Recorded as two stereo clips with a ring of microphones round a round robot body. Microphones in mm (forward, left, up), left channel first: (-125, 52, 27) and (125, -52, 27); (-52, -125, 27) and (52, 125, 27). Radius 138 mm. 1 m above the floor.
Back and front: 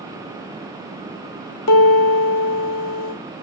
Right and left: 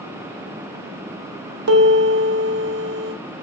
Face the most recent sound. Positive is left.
turn(degrees=120)